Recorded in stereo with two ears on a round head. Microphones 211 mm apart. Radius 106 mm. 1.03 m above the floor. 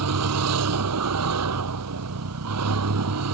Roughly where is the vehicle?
Right.